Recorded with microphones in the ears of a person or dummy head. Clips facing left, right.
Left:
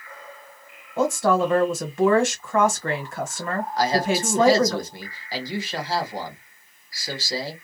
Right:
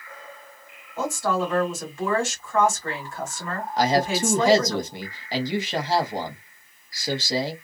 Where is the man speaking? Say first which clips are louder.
Right 1 dB; 20° right (ahead or behind), 1.0 m.